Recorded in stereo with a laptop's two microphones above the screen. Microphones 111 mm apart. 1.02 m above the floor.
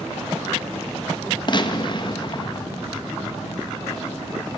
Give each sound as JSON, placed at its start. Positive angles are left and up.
{"t": 1.5, "sound": "a gunshot", "side_deg": 40, "distance_m": 1.2}